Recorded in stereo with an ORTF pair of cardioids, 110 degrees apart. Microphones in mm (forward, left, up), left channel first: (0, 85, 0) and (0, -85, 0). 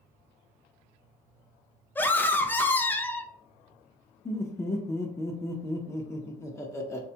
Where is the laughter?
15° left, 0.5 m.